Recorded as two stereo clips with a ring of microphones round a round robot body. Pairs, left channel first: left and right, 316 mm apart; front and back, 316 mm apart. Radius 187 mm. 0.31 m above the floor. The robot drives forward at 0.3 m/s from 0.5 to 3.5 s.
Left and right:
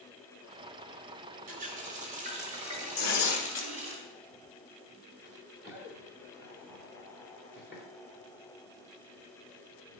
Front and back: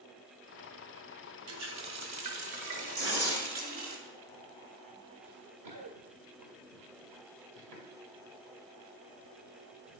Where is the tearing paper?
130° left, 1.4 m; by 3.7 s 135° left, 1.5 m.